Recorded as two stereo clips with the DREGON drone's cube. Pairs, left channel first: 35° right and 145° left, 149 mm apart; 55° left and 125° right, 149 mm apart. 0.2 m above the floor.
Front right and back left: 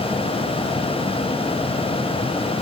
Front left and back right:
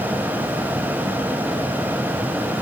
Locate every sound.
Only background noise.